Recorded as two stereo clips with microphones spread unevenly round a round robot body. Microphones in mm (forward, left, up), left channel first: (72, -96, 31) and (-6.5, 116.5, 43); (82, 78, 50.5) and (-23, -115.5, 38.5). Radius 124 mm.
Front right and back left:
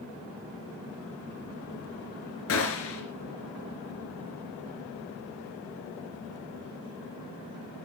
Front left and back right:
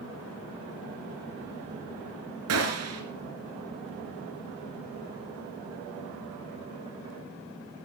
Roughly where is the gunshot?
Right.